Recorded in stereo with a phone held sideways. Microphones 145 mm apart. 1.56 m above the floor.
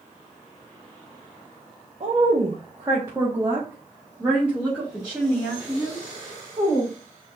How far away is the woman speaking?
About 0.8 m.